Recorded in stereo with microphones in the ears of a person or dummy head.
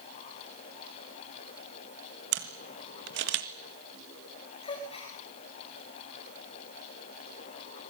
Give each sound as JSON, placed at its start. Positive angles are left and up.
{"t": 2.3, "sound": "a camera shutter", "side_deg": -60, "distance_m": 1.9}
{"t": 4.6, "sound": "a gasp", "side_deg": 30, "distance_m": 4.5}